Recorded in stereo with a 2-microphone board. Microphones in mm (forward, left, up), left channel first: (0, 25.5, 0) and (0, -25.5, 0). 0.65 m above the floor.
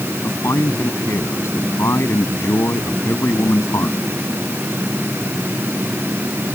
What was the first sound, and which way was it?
A man speaking, 70° left (ahead or behind).